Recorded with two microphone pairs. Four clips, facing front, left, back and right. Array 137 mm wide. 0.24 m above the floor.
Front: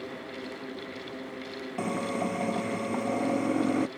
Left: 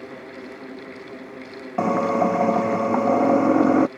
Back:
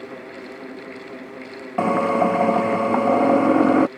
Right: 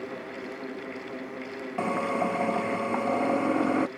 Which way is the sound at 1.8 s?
140° left.